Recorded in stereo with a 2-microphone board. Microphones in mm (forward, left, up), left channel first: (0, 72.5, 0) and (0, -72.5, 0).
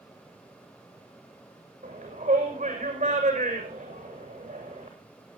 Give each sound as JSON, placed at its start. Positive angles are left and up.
{"t": 1.8, "sound": "a shout", "side_deg": -50, "distance_m": 7.0}